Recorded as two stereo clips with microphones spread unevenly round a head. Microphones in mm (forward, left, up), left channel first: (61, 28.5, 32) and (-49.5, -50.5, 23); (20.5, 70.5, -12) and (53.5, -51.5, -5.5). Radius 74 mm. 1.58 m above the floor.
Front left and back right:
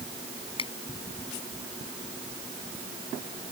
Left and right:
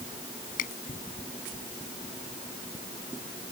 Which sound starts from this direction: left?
A finger snap, at 0.6 s.